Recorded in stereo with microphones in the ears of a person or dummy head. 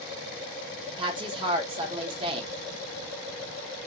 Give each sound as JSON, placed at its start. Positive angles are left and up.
{"t": 1.0, "sound": "a woman speaking", "side_deg": -30, "distance_m": 1.0}